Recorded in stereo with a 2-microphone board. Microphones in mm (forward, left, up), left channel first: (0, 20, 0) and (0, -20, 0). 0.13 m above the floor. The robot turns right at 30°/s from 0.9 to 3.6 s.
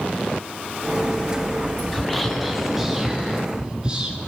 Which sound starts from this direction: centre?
Whispering, at 1.9 s.